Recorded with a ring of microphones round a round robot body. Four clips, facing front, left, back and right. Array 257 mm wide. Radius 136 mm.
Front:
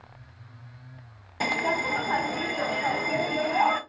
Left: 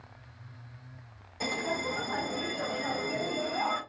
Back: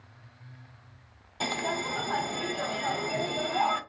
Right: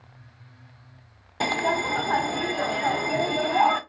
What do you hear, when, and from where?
1.4 s a bell: 70° right, 0.6 m